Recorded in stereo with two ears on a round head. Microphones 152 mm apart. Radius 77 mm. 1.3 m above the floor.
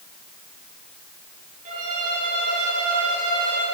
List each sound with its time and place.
1.6 s a violin: 45° right (ahead or behind), 10 m